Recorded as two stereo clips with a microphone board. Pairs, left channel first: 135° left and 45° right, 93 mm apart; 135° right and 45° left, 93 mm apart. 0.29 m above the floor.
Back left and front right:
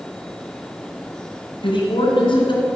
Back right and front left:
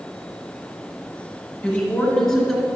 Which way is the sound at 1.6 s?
155° left.